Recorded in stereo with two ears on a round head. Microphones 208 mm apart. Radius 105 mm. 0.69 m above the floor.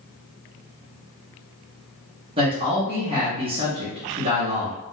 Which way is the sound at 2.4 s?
25° right (ahead or behind).